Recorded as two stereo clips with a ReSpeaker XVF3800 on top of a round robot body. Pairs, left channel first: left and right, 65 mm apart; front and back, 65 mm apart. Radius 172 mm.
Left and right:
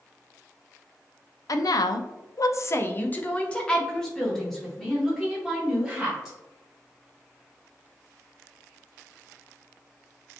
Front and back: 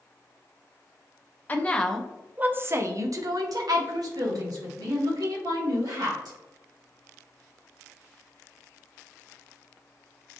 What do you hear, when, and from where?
1.5 s a woman speaking: 60° left, 0.6 m; by 6.4 s 175° right, 2 m